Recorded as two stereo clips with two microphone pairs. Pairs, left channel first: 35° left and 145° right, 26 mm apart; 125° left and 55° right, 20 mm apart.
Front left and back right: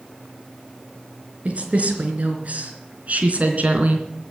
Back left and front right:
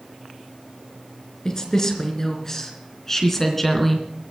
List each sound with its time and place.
1.4 s a woman speaking: 170° right, 3.5 m; by 4.1 s 155° right, 2.5 m